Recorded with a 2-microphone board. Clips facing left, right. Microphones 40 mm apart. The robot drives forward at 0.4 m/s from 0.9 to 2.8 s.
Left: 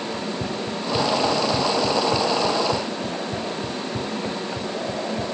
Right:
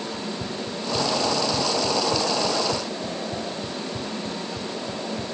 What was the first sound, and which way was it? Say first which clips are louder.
Running footsteps: left 3 dB; 65° left (ahead or behind).